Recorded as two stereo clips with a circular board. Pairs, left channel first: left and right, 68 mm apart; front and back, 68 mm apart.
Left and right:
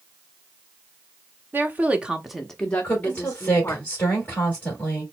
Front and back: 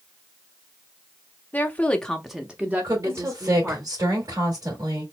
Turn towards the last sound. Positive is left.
turn(degrees=155)